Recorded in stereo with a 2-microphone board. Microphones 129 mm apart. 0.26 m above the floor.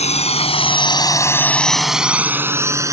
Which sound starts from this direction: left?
A drone, at 0.0 s.